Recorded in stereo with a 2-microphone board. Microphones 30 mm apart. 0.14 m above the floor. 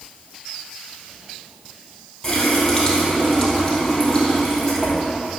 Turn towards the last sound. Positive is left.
turn(degrees=10)  # may be behind; listen again after turning